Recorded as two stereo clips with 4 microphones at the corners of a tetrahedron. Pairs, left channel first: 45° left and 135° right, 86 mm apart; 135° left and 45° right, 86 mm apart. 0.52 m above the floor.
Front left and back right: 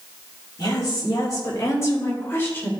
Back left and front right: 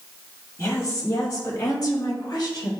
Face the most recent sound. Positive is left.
turn(degrees=110)